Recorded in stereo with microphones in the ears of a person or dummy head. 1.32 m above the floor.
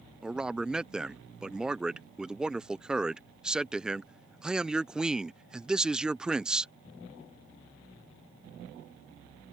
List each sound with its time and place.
0.2 s a man speaking: 5° right (ahead or behind)